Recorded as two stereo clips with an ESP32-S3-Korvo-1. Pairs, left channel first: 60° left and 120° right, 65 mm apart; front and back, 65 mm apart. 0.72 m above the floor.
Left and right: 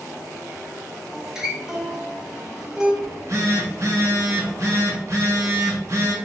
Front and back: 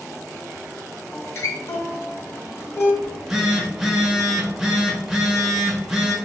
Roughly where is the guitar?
Ahead right.